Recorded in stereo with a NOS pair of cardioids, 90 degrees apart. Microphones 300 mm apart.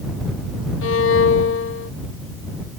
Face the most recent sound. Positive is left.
turn(degrees=45)